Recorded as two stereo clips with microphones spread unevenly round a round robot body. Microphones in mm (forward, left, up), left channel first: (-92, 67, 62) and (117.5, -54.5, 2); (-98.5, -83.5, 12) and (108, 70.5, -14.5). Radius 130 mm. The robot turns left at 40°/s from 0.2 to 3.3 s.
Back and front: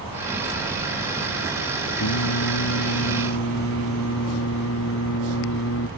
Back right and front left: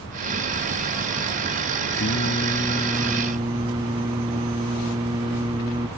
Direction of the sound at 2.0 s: 165° left.